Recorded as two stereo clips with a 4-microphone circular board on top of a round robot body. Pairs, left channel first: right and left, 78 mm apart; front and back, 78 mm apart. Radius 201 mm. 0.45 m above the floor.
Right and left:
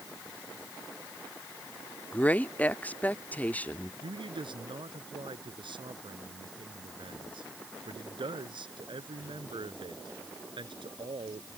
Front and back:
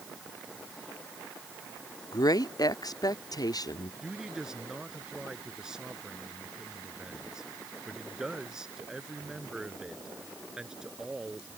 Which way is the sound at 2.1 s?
20° right.